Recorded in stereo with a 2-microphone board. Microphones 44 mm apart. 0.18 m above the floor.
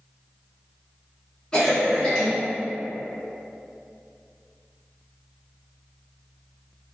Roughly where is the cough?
Centre.